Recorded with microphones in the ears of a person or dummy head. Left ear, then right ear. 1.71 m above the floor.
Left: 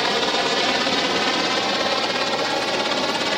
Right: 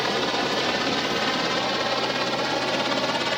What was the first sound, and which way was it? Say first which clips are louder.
A helicopter: left 4 dB; 20° left (ahead or behind).